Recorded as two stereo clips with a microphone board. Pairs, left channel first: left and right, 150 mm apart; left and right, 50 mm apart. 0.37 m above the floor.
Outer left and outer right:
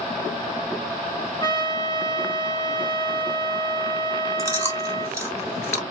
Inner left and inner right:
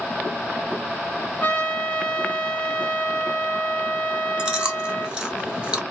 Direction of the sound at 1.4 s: 30° left (ahead or behind).